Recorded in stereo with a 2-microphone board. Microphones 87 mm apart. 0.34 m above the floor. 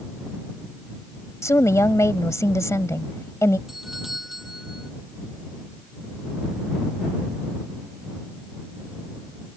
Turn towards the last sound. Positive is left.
turn(degrees=0)  # may be behind; listen again after turning